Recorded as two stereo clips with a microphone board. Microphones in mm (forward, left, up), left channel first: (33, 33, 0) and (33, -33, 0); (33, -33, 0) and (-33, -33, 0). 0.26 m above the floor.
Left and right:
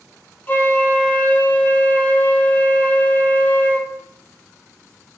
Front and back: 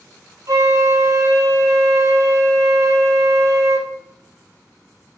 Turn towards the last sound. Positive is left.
turn(degrees=150)